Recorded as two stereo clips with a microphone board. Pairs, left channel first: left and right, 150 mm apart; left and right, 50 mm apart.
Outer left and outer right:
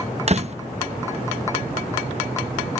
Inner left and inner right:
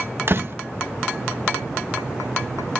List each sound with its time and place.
0.3 s a door slam: 45° right (ahead or behind)